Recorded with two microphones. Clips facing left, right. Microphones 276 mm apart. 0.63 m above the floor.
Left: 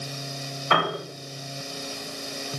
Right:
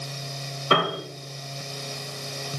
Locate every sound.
0.7 s a piano: 40° right (ahead or behind), 3.5 m